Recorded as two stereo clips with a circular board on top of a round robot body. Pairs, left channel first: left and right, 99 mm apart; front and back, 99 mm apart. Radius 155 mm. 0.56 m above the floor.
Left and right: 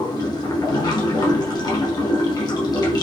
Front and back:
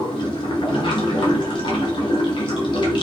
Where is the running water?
40° left, 1.2 m.